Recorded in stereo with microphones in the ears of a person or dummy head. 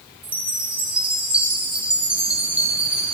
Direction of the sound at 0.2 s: 10° right (ahead or behind).